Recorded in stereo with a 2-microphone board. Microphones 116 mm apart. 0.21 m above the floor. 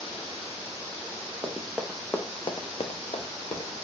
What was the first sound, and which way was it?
Running footsteps, 15° right (ahead or behind).